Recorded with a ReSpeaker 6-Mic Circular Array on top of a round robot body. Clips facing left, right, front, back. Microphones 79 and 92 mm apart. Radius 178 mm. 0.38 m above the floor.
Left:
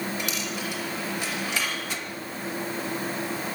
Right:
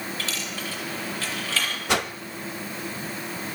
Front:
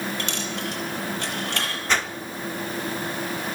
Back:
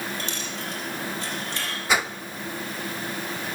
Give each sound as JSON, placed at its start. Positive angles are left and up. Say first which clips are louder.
{"t": 0.2, "sound": "a dropped coin", "louder": "left 2 dB, front 3 dB", "azimuth_deg": 15, "distance_m": 5.5}
{"t": 1.9, "sound": "a whoosh", "louder": "right 9 dB, back 1 dB", "azimuth_deg": -100, "distance_m": 1.2}